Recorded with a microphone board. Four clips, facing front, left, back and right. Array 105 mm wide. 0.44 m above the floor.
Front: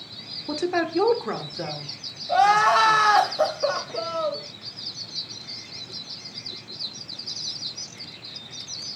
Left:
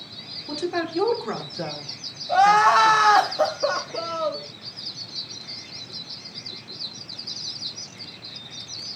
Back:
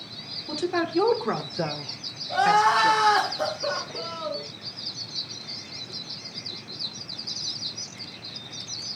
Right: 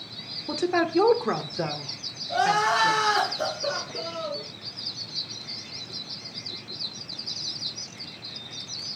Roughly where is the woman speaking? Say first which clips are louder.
Right 3 dB, front 2 dB; ahead right.